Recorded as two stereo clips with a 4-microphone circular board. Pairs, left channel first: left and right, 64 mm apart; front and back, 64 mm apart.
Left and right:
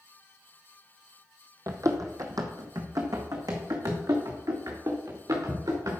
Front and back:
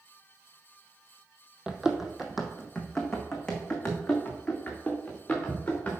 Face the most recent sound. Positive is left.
turn(degrees=-75)